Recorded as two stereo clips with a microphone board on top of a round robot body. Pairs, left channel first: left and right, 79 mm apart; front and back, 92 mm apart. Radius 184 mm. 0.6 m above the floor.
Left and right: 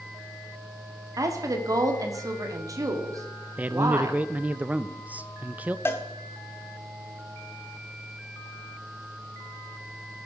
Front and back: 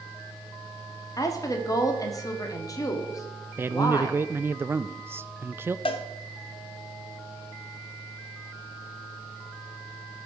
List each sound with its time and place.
1.2 s a woman speaking: 50° right, 1.8 m
3.6 s a man speaking: 145° right, 0.6 m
5.8 s a cowbell: 25° left, 0.5 m